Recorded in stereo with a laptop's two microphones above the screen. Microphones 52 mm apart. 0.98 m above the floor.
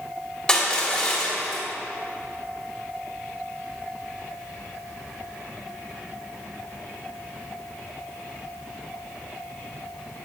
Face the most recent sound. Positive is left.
turn(degrees=20)  # may be behind; listen again after turning